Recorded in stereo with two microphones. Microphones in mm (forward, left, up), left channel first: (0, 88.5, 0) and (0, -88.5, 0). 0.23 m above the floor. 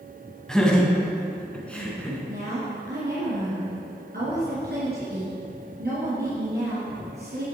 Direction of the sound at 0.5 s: 5° left (ahead or behind).